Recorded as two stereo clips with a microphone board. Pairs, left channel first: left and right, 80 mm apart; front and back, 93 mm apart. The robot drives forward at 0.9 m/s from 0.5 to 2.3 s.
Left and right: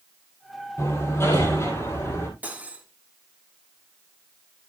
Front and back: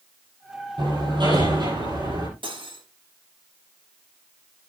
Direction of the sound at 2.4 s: 160° right.